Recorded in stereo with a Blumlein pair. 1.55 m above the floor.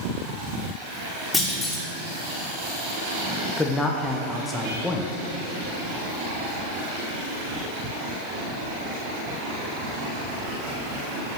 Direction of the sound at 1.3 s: 10° left.